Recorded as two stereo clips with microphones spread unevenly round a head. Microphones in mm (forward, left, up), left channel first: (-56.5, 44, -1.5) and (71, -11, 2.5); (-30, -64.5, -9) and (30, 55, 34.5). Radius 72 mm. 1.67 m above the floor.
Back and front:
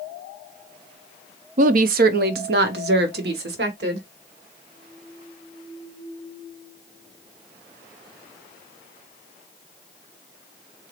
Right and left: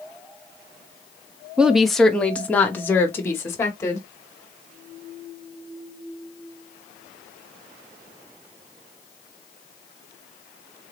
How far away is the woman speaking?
About 0.5 m.